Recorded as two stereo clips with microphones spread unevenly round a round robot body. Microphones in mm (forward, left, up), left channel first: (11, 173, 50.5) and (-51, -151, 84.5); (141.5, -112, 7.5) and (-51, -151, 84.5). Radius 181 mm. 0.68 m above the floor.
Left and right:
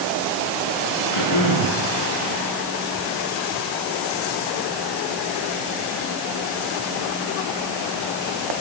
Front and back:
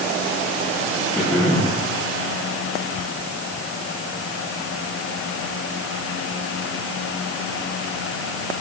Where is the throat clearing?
115° left, 9 m.